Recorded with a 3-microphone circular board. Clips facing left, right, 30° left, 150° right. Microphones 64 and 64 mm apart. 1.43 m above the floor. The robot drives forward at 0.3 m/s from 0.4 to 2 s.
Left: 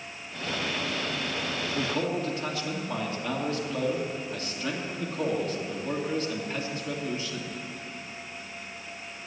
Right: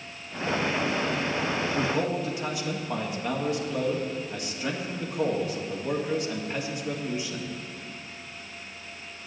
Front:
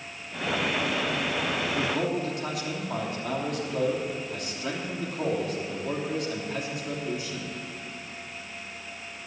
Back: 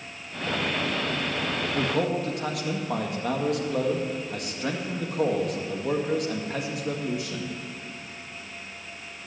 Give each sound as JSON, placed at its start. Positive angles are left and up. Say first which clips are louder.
{"t": 1.6, "sound": "a man speaking", "louder": "even, back 5 dB", "azimuth_deg": -160, "distance_m": 1.8}